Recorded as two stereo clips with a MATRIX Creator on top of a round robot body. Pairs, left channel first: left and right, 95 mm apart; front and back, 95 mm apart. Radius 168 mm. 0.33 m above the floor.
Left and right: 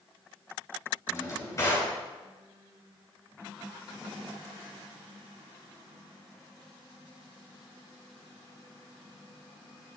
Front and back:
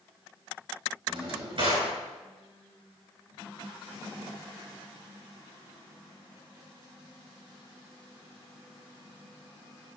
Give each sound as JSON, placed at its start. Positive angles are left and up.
{"t": 1.1, "sound": "a drawer", "azimuth_deg": 150, "distance_m": 4.5}